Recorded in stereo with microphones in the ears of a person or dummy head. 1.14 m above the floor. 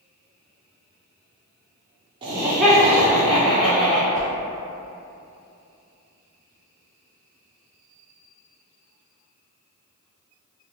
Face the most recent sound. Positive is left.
turn(degrees=-50)  # may be behind; listen again after turning